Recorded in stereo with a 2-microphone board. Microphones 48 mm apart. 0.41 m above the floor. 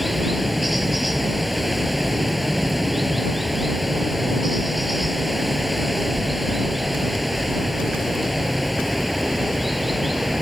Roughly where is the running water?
Centre.